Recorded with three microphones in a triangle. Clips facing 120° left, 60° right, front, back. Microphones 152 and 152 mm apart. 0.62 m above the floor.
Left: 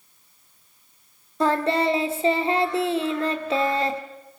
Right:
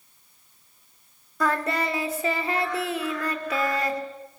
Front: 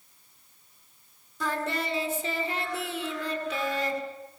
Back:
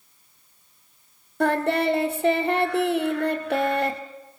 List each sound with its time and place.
1.4 s singing: straight behind, 1.8 m